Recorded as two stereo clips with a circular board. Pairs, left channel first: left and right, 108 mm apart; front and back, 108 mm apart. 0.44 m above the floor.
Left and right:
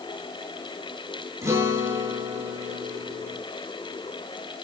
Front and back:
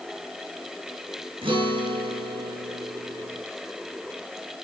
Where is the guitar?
150° right, 7.5 m.